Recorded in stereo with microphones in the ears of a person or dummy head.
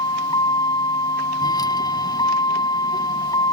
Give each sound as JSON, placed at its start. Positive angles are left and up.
{"t": 0.0, "sound": "a vehicle", "side_deg": 25}